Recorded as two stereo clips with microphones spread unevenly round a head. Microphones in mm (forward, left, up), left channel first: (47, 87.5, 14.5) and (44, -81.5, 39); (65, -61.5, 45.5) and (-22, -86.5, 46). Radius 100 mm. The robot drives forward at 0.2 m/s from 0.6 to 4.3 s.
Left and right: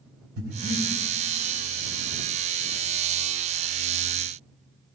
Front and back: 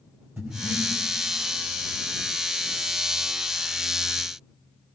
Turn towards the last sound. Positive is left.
turn(degrees=-115)